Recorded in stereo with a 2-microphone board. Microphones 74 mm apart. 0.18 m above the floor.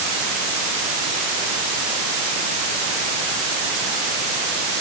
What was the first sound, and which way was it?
Only background noise.